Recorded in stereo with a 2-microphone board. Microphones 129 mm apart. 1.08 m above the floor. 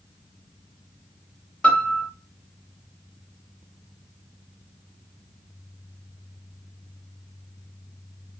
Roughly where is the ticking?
I don't hear ticking.